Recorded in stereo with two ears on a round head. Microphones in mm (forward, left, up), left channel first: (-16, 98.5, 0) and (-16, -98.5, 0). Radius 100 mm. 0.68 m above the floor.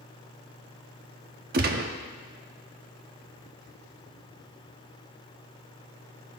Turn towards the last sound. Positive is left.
turn(degrees=-45)  # may be behind; listen again after turning